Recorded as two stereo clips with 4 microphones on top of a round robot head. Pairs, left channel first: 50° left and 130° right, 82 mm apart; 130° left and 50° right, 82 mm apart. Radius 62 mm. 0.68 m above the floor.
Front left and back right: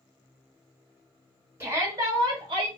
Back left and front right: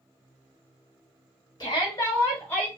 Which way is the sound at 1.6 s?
165° left.